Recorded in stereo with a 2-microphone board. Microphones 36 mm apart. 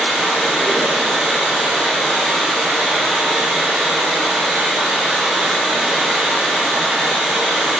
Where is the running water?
20° right (ahead or behind), 1.2 m.